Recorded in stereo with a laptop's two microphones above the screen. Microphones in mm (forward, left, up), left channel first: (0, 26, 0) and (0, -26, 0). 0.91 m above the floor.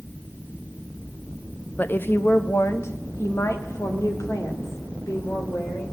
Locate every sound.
1.8 s a woman speaking: 35° left (ahead or behind), 0.5 m; by 5.8 s 75° left (ahead or behind), 3 m